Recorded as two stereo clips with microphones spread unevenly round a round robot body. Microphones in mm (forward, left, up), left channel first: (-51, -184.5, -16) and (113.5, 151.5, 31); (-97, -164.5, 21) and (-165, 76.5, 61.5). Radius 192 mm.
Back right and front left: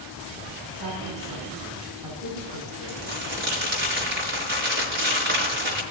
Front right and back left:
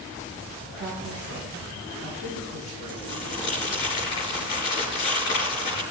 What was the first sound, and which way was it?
A woman speaking, 90° left.